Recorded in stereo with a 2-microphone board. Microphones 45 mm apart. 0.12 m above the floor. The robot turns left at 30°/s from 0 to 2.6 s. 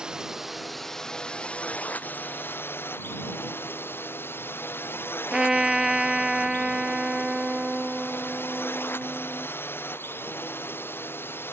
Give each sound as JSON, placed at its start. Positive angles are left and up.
{"t": 0.0, "sound": "a drone", "azimuth_deg": -165}
{"t": 5.3, "sound": "a trumpet", "side_deg": -15}